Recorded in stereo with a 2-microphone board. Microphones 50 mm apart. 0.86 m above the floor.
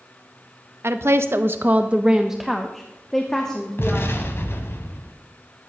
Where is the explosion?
55° left (ahead or behind), 1.3 m.